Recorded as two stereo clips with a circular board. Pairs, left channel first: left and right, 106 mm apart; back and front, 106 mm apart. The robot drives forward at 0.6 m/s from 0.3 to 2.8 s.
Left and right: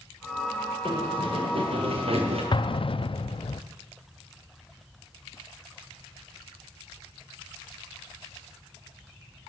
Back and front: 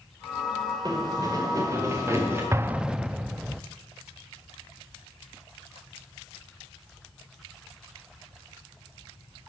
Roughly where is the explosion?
Ahead left.